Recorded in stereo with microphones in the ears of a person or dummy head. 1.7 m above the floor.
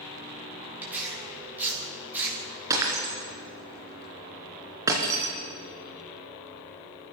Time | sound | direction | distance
0.8 | tearing paper | 10° right (ahead or behind) | 4 m
2.7 | breaking glass | 15° right (ahead or behind) | 3.5 m